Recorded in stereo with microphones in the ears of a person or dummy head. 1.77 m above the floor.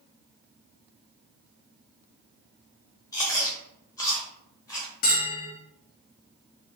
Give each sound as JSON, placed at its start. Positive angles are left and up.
{"t": 3.1, "sound": "chewing", "side_deg": 20, "distance_m": 1.0}
{"t": 5.0, "sound": "a bell", "side_deg": 50, "distance_m": 0.8}